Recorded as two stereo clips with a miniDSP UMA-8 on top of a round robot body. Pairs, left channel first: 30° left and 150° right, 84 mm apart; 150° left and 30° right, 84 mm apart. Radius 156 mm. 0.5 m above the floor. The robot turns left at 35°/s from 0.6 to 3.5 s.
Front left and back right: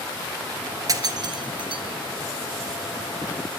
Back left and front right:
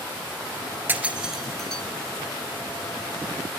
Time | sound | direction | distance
0.9 | breaking glass | 100° right | 1.7 m